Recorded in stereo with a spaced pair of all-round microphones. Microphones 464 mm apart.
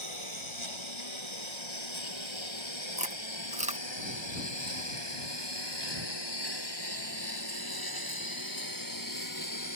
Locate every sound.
0.0 s a lawn mower: 75° left (ahead or behind); by 9.8 s 40° left (ahead or behind)
3.0 s chewing: 15° right (ahead or behind)